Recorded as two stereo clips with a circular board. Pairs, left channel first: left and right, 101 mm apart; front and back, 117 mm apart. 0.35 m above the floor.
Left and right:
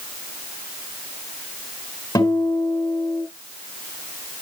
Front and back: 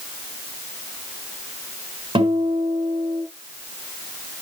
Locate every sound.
2.1 s a guitar: 140° left, 4.5 m